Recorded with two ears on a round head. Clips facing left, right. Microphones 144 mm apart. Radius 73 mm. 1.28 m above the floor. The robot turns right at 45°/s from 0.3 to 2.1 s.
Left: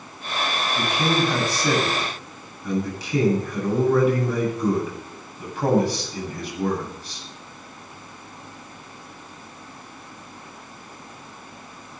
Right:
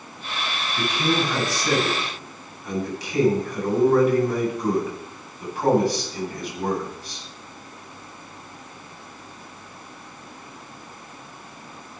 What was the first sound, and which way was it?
A man speaking, 20° left.